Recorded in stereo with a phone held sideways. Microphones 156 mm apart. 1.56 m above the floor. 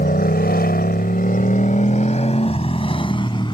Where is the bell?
No bell in this recording.